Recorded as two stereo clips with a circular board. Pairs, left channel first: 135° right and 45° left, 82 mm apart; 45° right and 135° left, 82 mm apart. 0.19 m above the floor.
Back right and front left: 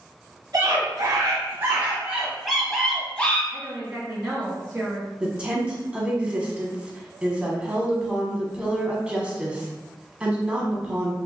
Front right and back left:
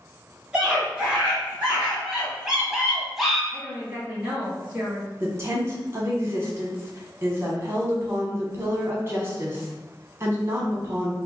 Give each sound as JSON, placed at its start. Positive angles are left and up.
{"t": 0.5, "sound": "a scream", "azimuth_deg": 60, "distance_m": 1.5}
{"t": 3.5, "sound": "a woman speaking", "azimuth_deg": 85, "distance_m": 1.2}
{"t": 5.2, "sound": "a woman speaking", "azimuth_deg": 110, "distance_m": 1.1}